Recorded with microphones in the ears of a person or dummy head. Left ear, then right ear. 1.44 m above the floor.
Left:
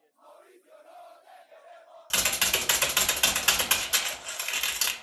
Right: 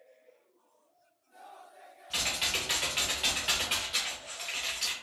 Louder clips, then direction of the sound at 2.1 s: Left 4 dB; 45° left (ahead or behind).